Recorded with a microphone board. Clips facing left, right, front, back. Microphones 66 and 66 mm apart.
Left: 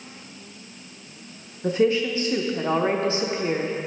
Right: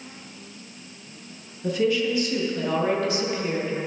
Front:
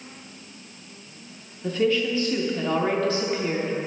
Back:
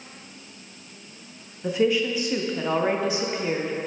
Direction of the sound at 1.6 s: 115° left.